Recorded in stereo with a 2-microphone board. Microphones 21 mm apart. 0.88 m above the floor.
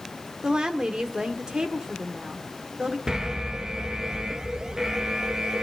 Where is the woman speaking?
45° right (ahead or behind), 2 m.